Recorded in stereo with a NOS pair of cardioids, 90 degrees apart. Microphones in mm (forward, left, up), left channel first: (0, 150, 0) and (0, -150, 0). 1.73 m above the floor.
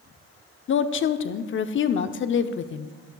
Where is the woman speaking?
45° left, 0.7 m.